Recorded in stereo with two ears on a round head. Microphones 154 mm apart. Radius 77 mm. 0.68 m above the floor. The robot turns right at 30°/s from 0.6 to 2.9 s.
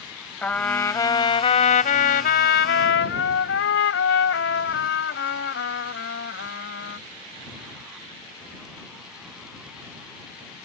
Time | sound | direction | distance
0.4 | a trumpet | 10° left | ?